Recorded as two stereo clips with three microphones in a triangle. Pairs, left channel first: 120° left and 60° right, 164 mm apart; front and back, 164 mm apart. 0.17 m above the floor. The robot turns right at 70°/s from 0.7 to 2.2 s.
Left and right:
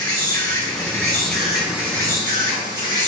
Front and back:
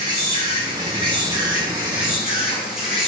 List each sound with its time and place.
0.0 s an insect: 160° left, 2.0 m; by 3.1 s 95° right, 2.0 m